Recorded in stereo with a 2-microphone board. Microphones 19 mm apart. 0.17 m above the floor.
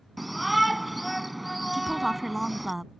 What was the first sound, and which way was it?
A shout, centre (ahead or behind).